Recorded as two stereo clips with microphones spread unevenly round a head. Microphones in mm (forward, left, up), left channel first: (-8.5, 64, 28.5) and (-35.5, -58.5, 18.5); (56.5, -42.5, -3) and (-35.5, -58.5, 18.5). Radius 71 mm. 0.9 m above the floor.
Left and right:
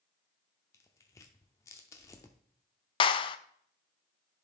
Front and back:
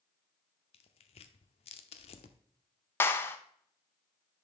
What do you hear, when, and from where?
0.7 s tearing paper: 15° left, 0.6 m
3.0 s a clap: 45° left, 0.5 m